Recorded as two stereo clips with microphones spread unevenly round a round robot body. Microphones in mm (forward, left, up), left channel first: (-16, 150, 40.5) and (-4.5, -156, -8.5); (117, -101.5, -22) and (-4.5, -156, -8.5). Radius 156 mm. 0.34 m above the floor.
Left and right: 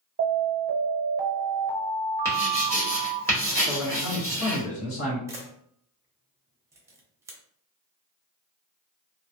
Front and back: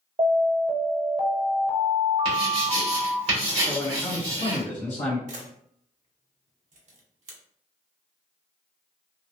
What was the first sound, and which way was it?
An alarm, 125° right.